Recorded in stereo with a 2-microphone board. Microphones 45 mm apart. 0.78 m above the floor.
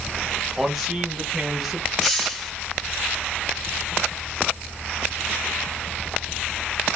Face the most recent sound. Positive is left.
turn(degrees=5)  # may be behind; listen again after turning